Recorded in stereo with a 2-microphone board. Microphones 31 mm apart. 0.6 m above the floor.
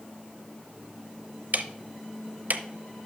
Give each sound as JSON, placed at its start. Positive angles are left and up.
{"t": 1.5, "sound": "ticking", "side_deg": -60, "distance_m": 0.6}